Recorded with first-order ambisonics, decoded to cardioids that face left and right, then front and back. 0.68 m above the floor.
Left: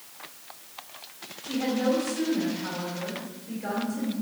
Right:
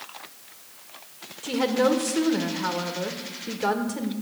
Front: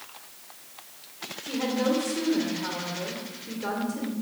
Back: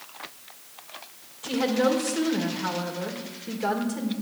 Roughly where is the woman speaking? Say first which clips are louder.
Right 5 dB, back 4 dB; right.